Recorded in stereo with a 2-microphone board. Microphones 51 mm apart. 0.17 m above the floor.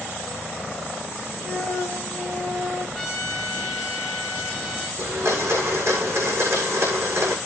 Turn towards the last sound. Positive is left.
turn(degrees=-60)  # may be behind; listen again after turning